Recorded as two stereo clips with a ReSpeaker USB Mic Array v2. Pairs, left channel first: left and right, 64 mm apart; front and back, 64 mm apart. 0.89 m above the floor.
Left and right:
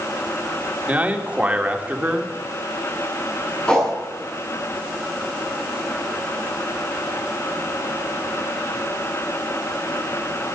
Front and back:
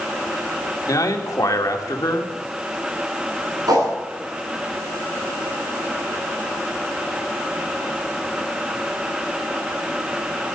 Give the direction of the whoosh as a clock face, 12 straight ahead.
6 o'clock.